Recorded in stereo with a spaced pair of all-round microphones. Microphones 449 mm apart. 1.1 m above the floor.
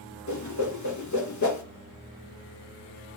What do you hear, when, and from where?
0.3 s a whoosh: 40° left (ahead or behind), 0.6 m